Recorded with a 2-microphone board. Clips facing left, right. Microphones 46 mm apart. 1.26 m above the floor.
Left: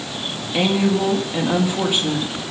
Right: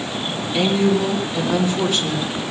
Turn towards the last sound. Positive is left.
turn(degrees=20)  # may be behind; listen again after turning